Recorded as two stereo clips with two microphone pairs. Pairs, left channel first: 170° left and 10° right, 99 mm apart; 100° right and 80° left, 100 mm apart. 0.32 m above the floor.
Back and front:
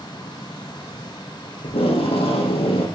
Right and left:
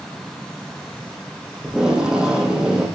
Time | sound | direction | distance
1.6 | tape being pulled | 165° left | 6.5 m